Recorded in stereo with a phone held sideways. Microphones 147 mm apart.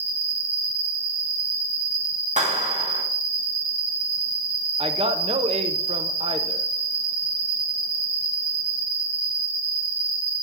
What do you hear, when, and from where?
0.0 s an insect: 10° right (ahead or behind), 1.2 m
2.4 s a clap: 55° right (ahead or behind), 1.7 m
4.8 s a man speaking: 45° right (ahead or behind), 0.8 m